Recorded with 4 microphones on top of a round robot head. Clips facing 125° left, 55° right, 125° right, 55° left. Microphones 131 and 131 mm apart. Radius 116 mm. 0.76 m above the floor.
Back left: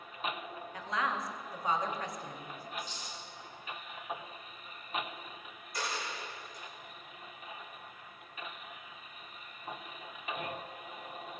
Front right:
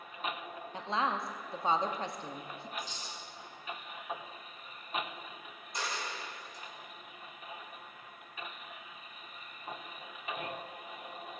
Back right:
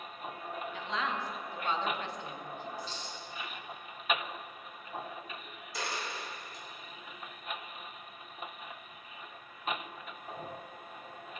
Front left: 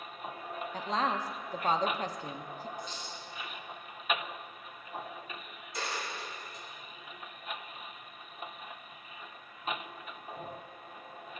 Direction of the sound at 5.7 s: 130° right.